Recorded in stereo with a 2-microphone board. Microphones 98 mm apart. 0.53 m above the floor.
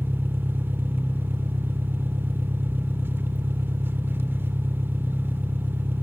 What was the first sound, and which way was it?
An engine running, 20° right (ahead or behind).